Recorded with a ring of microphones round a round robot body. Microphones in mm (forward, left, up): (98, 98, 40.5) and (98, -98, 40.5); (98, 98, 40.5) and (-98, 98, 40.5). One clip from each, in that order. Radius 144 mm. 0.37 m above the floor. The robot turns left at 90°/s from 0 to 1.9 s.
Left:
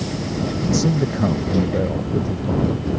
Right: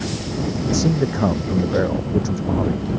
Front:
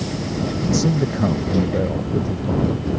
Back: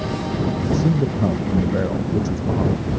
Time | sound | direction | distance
0.7 | a man speaking | 5° right | ?